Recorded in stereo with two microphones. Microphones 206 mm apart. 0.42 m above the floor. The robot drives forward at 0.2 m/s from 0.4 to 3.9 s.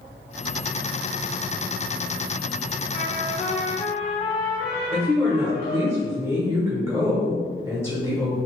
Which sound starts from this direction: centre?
A woman speaking, at 4.9 s.